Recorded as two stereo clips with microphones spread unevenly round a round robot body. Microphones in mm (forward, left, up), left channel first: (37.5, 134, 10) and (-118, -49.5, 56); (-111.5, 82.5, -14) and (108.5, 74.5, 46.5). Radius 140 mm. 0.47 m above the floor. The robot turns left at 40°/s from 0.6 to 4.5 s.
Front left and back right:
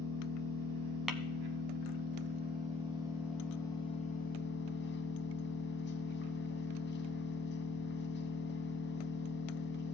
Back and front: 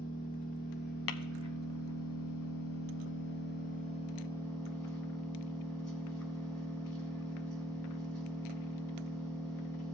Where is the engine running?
110° right, 1.9 m; by 9.9 s 95° left, 1.9 m.